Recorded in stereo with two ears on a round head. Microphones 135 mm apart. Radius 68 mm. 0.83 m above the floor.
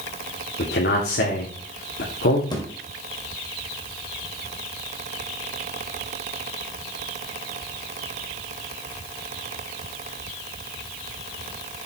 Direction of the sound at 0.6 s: 75° left (ahead or behind).